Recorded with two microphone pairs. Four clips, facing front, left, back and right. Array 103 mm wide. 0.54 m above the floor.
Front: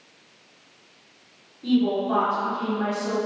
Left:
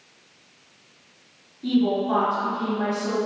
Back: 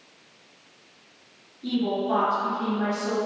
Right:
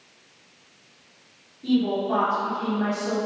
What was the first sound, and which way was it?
A woman speaking, 120° left.